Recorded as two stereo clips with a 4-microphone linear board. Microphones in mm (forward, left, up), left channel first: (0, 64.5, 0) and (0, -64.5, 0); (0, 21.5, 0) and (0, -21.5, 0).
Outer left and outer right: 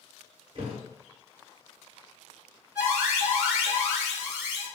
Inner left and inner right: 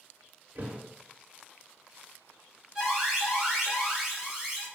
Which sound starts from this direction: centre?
An alarm, at 2.8 s.